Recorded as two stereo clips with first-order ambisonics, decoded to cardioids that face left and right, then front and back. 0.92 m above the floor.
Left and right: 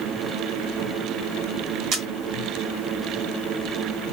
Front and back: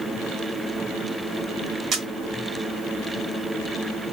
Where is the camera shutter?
125° right, 0.9 m.